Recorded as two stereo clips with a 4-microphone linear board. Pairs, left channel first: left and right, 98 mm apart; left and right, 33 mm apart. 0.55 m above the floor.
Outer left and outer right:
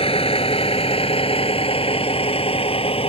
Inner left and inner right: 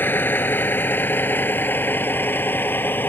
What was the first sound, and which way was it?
A vehicle, 80° left.